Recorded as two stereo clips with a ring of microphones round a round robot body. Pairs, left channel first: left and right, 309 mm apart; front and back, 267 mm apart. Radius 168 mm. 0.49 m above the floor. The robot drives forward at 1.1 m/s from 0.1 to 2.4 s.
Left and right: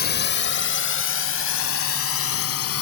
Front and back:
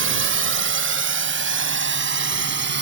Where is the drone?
145° left; by 2.8 s 130° left.